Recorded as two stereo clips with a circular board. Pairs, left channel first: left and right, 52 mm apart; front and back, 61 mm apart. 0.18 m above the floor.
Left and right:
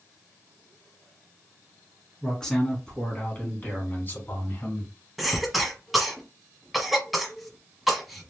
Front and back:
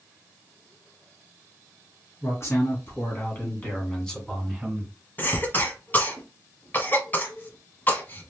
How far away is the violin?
No violin in this recording.